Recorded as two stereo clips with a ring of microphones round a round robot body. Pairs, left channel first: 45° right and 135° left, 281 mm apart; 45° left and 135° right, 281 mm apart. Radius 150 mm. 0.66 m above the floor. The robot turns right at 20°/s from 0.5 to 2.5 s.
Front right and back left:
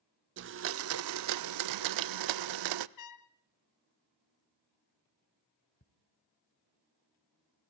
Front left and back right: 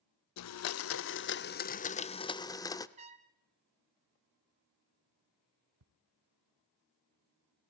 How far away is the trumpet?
About 0.8 m.